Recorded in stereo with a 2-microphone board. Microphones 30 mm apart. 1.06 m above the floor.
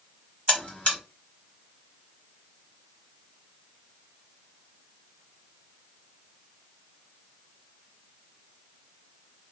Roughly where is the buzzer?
Left.